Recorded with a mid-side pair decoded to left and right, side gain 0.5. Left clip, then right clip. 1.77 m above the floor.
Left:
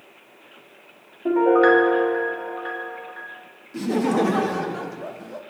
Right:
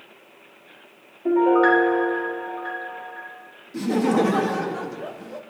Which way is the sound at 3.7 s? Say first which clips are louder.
Right 1 dB; 5° right.